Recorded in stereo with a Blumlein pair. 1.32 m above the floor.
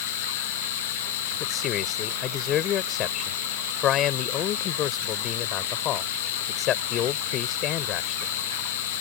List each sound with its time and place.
0.0 s a machine running: 50° left
1.4 s a man speaking: 30° left